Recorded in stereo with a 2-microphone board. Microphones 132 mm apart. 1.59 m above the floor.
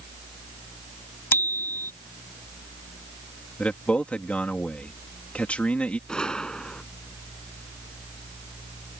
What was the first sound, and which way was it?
A bicycle bell, 20° left (ahead or behind).